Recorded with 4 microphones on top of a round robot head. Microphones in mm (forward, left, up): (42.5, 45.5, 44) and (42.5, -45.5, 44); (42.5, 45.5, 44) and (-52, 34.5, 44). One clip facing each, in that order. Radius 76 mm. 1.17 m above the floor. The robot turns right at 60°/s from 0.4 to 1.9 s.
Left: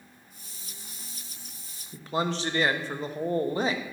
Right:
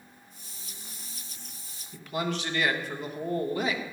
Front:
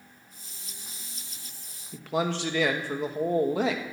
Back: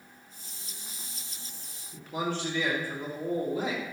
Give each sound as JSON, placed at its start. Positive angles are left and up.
{"t": 1.9, "sound": "a man speaking", "azimuth_deg": 30, "distance_m": 1.3}